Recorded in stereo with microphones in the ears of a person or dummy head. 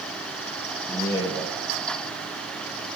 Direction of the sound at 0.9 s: 10° left (ahead or behind).